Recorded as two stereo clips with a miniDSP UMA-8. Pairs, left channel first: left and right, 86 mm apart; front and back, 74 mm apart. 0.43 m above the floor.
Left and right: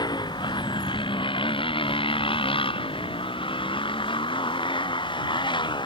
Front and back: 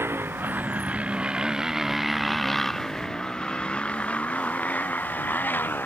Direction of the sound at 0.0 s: 120° left.